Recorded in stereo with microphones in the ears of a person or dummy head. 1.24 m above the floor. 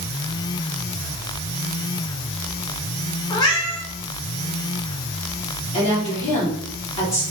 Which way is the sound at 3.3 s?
25° left (ahead or behind).